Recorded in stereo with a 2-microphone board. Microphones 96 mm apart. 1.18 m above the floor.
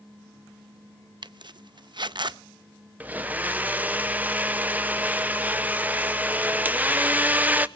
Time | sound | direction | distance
1.2 | a zipper | 50° right (ahead or behind) | 0.5 m
3.0 | a blender | 15° right (ahead or behind) | 0.6 m